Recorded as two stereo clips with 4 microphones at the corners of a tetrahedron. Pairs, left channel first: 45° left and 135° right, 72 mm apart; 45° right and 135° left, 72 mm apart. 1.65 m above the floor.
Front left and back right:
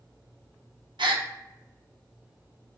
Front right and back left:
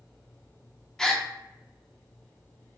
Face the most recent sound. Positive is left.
turn(degrees=-130)